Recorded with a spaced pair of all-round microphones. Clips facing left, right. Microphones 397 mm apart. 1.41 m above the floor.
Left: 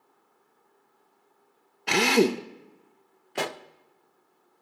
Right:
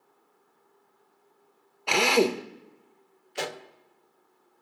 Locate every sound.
1.9 s a drill: 30° left (ahead or behind), 0.6 m
3.4 s a pop: 65° left (ahead or behind), 0.6 m